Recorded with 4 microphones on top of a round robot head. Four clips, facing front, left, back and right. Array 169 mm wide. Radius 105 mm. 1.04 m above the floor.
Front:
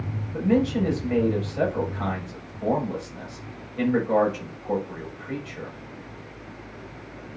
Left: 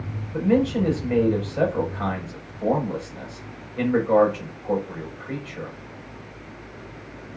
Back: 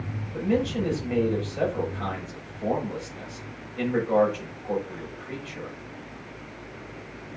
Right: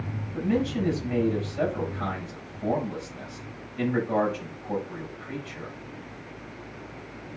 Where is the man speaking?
75° left, 6.5 m.